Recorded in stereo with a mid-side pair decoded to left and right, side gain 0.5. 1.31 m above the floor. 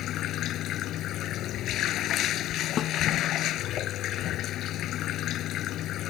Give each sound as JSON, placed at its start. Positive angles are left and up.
{"t": 0.0, "sound": "running water", "azimuth_deg": 70}
{"t": 2.8, "sound": "a snare drum", "azimuth_deg": 55}